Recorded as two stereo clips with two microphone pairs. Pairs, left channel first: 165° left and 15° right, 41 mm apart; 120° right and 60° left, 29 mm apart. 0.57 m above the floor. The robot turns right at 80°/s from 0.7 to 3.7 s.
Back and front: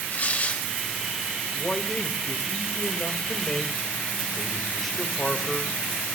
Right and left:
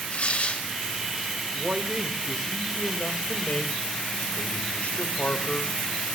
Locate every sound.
0.1 s tearing paper: 155° right, 2.5 m
1.5 s a man speaking: 75° left, 1.6 m; by 5.7 s 115° right, 1.6 m